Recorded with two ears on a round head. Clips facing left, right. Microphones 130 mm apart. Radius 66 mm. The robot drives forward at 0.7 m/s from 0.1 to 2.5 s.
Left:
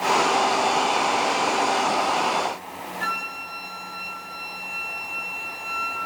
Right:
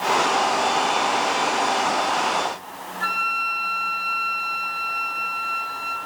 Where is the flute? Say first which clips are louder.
Right 4 dB; 15° left (ahead or behind), 2.5 m.